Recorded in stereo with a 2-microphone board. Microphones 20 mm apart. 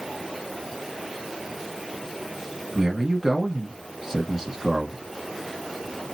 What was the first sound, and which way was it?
A man speaking, 25° right (ahead or behind).